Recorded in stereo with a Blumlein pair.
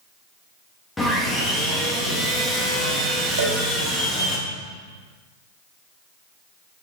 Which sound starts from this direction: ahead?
Sawing, at 1.0 s.